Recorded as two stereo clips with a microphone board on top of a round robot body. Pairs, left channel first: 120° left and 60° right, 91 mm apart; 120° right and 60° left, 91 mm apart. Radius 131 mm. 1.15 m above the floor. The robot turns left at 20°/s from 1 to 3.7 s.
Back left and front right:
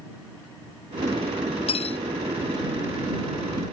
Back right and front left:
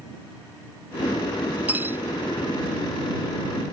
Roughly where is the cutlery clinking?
Behind left.